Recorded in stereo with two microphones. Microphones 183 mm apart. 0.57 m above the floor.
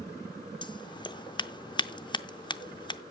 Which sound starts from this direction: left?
Scissors, at 0.6 s.